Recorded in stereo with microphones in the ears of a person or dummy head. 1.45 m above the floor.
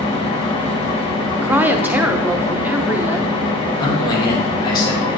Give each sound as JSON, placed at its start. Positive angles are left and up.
{"t": 0.0, "sound": "an engine running", "side_deg": 30, "distance_m": 1.1}
{"t": 1.4, "sound": "a woman speaking", "side_deg": -10, "distance_m": 0.7}
{"t": 3.8, "sound": "a man speaking", "side_deg": 25, "distance_m": 1.8}